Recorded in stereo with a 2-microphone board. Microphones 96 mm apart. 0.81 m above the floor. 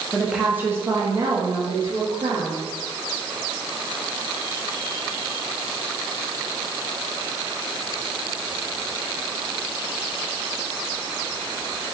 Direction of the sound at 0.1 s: 5° left (ahead or behind).